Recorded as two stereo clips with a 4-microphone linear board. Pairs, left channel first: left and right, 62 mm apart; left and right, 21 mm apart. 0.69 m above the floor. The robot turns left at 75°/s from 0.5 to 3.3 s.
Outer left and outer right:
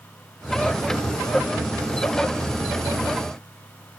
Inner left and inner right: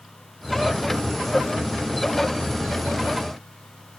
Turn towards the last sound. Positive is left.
No sound to turn to.